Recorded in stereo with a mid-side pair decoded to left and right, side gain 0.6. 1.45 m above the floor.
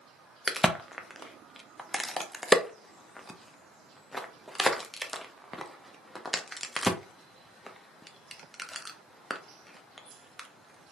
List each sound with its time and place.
0.5 s a crack: 5° left, 0.6 m